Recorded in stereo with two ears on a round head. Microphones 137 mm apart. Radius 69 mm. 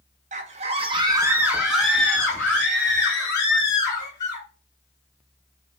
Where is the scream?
50° right (ahead or behind), 0.7 m; by 4.5 s 25° left (ahead or behind), 2.5 m.